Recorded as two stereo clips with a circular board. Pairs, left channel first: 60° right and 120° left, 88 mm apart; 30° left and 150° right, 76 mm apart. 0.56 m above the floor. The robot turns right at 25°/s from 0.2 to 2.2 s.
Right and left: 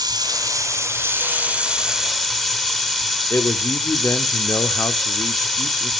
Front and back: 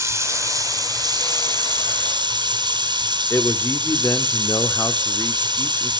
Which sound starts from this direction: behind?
Running water, at 0.0 s.